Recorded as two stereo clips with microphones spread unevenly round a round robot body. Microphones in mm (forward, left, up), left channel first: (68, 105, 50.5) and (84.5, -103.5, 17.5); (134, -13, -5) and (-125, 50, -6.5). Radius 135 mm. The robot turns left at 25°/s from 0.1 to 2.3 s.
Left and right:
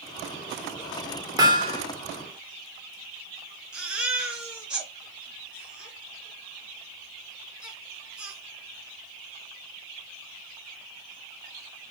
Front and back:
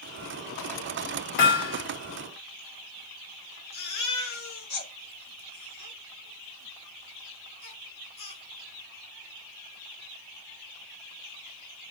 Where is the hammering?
15° right, 2 m; by 1.8 s 25° right, 2 m.